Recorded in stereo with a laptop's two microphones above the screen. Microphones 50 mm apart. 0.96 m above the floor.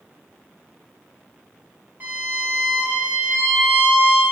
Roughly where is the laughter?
I don't hear laughter.